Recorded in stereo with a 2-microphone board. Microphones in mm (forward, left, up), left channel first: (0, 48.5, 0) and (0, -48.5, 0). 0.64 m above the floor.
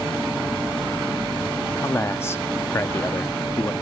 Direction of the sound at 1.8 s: 25° left (ahead or behind).